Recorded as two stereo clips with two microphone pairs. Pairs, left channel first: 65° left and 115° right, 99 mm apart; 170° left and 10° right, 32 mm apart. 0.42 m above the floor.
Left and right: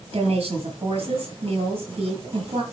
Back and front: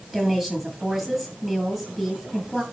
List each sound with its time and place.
0.1 s a woman speaking: 90° right, 7.5 m